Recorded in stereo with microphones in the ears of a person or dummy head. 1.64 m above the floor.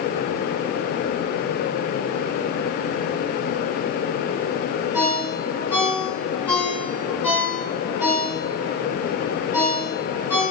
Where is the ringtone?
15° right (ahead or behind), 3.5 m.